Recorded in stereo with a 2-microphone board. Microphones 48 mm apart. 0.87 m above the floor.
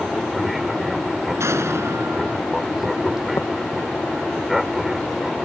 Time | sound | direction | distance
0.0 | an aircraft | 5° right (ahead or behind) | ?
1.4 | an explosion | 70° right (ahead or behind) | ?
3.4 | tapping | 80° left | ?